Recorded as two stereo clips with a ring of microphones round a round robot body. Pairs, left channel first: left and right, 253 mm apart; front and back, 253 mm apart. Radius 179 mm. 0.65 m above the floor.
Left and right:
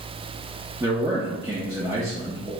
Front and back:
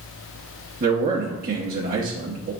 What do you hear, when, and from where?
0.8 s a man speaking: 160° right, 0.6 m